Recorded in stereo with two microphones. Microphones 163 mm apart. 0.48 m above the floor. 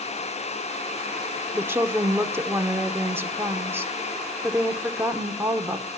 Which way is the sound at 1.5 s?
15° right (ahead or behind).